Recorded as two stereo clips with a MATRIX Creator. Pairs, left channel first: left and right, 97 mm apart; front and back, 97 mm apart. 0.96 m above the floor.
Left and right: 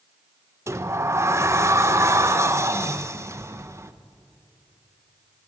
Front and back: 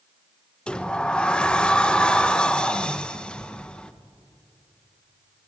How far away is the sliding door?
About 0.9 m.